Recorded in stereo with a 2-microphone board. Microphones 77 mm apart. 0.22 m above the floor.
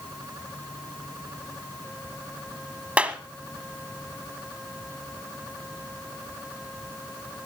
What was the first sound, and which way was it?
A clap, 15° right (ahead or behind).